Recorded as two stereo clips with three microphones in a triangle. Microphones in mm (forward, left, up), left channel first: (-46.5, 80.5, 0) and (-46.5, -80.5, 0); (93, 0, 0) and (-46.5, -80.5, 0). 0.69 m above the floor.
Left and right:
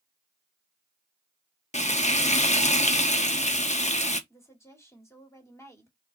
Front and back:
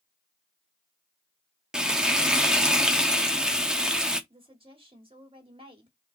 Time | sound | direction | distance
1.7 | frying | 125° left | 0.8 m
4.3 | a woman speaking | 160° left | 2.0 m